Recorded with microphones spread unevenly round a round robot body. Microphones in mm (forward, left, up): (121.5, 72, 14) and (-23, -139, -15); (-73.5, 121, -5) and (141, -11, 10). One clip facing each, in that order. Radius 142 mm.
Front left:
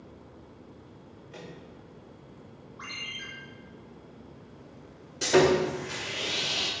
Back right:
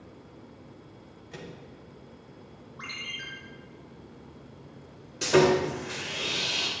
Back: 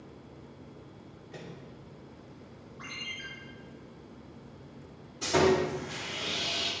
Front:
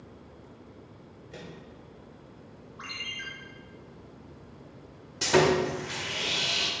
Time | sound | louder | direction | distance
1.3 | a microwave | back right 2 dB, front 1 dB | 105° right | 2.5 m
2.8 | a ringtone | back right 1 dB, even | 70° right | 3 m
5.2 | sawing | even, front 2 dB | 45° right | 1.7 m